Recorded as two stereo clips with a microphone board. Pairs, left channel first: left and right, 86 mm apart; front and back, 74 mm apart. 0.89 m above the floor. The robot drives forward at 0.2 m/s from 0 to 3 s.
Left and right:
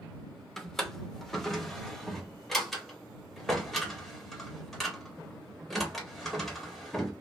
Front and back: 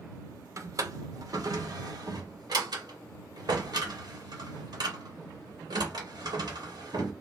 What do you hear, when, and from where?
0.6 s a drawer: 175° left, 0.6 m